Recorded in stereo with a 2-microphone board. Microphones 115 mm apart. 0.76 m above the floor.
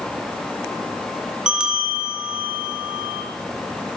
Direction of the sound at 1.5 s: 5° right (ahead or behind).